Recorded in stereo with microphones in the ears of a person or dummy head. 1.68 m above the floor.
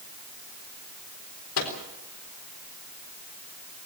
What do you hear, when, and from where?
1.6 s a microwave: 75° left (ahead or behind), 4 m